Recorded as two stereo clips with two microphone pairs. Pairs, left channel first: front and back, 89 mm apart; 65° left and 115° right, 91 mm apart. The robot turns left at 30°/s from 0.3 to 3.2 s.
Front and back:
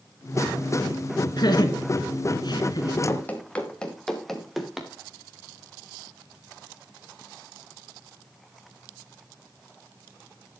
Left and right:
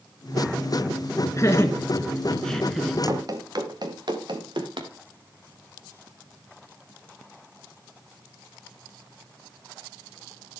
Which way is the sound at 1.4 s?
20° left.